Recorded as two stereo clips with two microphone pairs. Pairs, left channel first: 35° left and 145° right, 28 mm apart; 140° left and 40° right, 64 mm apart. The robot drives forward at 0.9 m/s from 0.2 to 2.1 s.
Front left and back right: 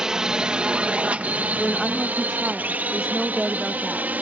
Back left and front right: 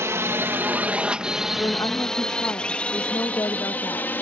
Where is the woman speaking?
120° left; by 4.1 s 135° left.